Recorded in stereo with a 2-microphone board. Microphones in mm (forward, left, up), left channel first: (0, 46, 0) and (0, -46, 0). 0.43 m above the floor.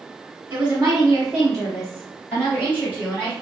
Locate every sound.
0.5 s a woman speaking: 25° right (ahead or behind), 1.5 m; by 3.3 s 20° left (ahead or behind), 4 m